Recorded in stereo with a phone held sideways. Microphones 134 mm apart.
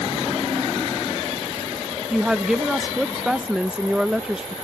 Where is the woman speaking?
5° right (ahead or behind).